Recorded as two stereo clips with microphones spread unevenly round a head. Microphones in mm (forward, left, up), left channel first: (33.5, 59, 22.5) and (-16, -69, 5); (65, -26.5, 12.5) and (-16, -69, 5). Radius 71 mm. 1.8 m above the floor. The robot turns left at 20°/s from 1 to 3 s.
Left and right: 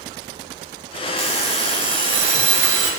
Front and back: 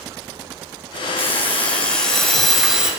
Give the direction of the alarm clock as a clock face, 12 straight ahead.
1 o'clock.